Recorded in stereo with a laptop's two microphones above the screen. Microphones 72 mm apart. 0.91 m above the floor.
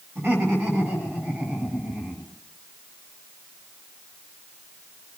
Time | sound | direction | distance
0.1 | laughter | 35° right (ahead or behind) | 6.5 m